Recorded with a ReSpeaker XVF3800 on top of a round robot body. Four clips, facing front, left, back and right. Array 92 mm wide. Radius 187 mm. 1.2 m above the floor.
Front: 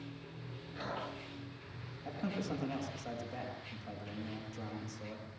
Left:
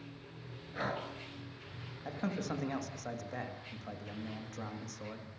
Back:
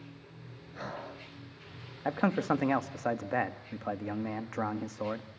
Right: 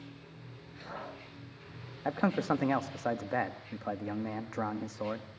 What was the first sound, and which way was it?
Breathing, 105° left.